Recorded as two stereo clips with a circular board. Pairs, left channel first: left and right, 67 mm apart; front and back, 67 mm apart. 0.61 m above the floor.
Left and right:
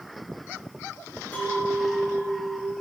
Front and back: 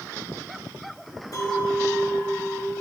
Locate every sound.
1.3 s a clink: 20° left, 4.5 m